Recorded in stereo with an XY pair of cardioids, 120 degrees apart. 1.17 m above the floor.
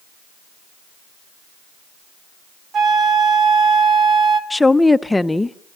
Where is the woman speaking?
10° left, 0.6 m.